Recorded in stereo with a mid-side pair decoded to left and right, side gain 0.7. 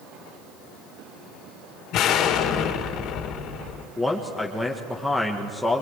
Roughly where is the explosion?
Ahead left.